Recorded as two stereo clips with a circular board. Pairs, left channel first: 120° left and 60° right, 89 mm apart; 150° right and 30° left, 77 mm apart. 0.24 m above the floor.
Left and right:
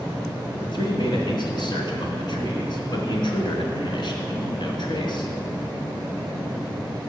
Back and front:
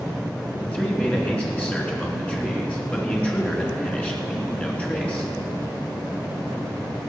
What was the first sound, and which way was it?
A man speaking, 140° left.